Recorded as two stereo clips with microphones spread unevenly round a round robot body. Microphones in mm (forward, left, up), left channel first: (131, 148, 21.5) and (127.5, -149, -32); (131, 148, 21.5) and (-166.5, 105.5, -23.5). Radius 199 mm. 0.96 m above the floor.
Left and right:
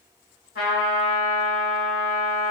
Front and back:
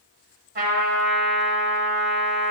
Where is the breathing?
No breathing in this recording.